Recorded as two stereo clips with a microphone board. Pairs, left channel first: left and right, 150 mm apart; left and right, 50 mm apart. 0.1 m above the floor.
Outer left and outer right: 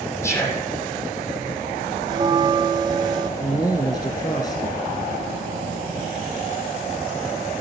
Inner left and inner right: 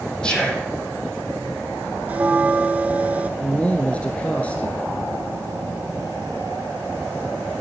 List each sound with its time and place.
0.2 s whispering: 20° left (ahead or behind), 4.5 m
2.1 s a bell: 30° right (ahead or behind), 0.7 m
3.4 s a man speaking: 25° left (ahead or behind), 1.3 m